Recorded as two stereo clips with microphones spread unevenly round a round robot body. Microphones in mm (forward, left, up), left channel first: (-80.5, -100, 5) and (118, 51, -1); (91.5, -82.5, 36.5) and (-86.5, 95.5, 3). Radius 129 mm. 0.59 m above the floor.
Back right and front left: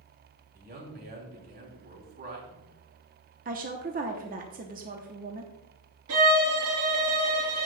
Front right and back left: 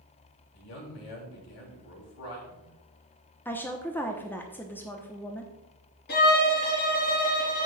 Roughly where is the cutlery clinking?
No cutlery clinking in this recording.